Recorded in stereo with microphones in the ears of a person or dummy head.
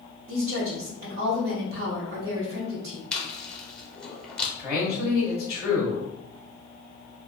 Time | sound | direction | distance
0.3 | a woman speaking | 55° right (ahead or behind) | 1.0 m
3.1 | chewing | 5° left (ahead or behind) | 0.7 m
4.6 | a man speaking | 10° right (ahead or behind) | 0.9 m